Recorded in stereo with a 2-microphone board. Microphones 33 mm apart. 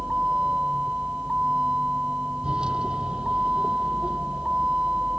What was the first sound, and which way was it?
A vehicle, 30° right (ahead or behind).